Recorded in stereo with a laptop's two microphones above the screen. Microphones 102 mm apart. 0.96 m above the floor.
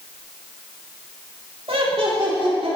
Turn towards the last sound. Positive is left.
turn(degrees=-70)  # may be behind; listen again after turning